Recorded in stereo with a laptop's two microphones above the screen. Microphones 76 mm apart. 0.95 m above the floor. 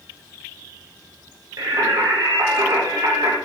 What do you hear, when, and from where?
1.6 s singing: 55° right (ahead or behind), 0.7 m